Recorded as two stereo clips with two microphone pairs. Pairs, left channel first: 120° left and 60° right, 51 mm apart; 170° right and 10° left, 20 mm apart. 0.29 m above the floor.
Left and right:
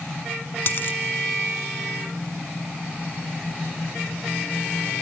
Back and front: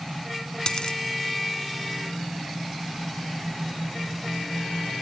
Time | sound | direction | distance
0.7 | a dropped coin | 160° left | 0.9 m